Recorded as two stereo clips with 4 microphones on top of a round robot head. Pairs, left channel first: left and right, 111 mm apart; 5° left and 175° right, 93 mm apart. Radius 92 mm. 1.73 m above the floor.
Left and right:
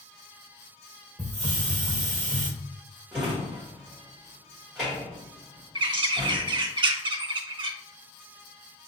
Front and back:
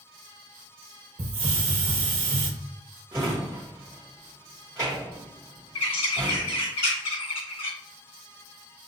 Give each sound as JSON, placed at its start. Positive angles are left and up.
{"t": 1.2, "sound": "a hiss", "azimuth_deg": -155, "distance_m": 0.7}
{"t": 3.1, "sound": "a drawer", "azimuth_deg": -165, "distance_m": 1.1}
{"t": 5.8, "sound": "a bird", "azimuth_deg": -40, "distance_m": 0.8}